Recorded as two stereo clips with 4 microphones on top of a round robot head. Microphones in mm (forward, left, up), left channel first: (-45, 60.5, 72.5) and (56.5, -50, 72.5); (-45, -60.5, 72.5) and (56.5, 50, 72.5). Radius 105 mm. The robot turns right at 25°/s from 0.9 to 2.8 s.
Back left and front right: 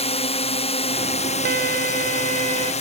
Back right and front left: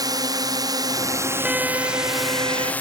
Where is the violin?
35° right; by 2.7 s 5° right.